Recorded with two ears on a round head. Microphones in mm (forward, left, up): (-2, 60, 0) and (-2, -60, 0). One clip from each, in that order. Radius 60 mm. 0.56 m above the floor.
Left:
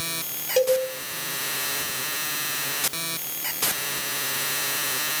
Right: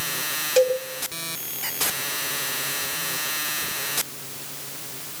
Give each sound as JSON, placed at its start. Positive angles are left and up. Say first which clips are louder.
{"t": 0.6, "sound": "a cowbell", "louder": "right 1 dB", "side_deg": -30, "distance_m": 3.0}